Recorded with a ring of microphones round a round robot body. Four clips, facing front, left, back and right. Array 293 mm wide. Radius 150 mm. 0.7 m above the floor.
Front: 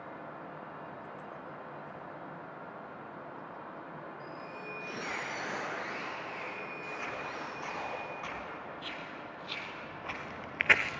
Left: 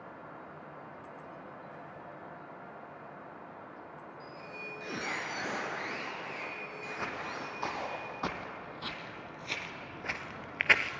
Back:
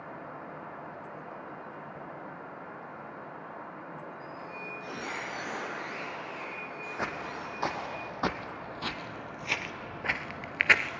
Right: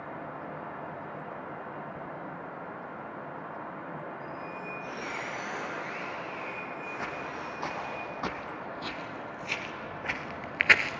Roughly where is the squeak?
Left.